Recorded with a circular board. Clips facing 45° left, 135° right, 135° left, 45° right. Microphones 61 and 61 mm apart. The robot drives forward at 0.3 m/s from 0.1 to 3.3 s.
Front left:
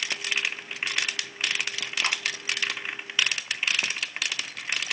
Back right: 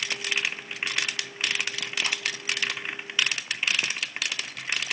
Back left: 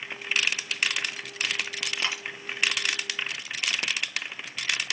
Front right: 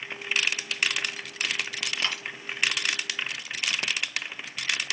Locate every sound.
2.0 s a dropped coin: 55° left, 3 m; by 2.2 s 60° left, 2.5 m